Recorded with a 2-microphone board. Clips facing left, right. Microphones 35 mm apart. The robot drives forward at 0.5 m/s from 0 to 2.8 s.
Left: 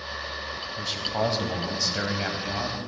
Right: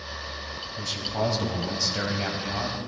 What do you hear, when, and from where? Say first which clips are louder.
0.8 s a man speaking: left 1 dB; 25° left (ahead or behind), 1.0 m; by 2.8 s 20° left (ahead or behind), 1.3 m